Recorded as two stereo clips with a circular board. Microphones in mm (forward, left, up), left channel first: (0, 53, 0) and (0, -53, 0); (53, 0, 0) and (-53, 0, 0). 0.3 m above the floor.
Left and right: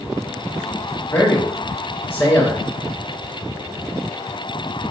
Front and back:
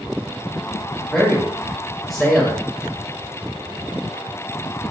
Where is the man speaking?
85° left, 0.9 m.